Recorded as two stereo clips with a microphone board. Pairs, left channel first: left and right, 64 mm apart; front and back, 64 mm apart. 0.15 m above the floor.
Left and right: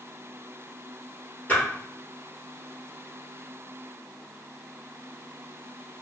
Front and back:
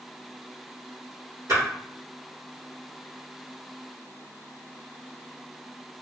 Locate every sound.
1.5 s a splash: 150° left, 1.7 m